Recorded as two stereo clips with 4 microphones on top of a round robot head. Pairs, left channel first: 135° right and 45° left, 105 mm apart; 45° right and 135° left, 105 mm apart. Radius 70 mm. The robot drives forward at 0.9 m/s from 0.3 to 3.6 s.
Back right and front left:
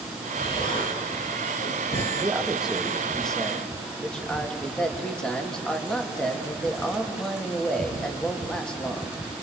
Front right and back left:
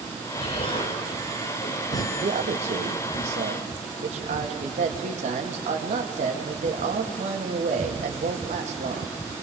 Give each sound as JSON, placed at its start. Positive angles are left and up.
{"t": 0.4, "sound": "an explosion", "azimuth_deg": -80, "distance_m": 3.5}
{"t": 2.1, "sound": "a man speaking", "azimuth_deg": 120, "distance_m": 2.0}